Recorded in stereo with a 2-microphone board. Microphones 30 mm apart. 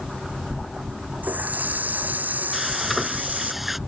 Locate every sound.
1.2 s a running tap: 70° right (ahead or behind)
2.5 s frying: 10° right (ahead or behind)